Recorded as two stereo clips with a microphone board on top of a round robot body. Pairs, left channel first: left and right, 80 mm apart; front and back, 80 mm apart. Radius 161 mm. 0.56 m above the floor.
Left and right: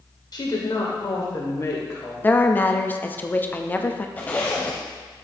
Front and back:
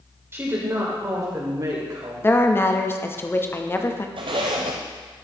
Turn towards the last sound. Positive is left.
turn(degrees=160)